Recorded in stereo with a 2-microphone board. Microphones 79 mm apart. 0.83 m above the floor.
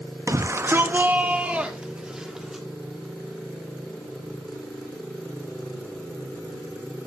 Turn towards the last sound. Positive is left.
turn(degrees=-5)  # may be behind; listen again after turning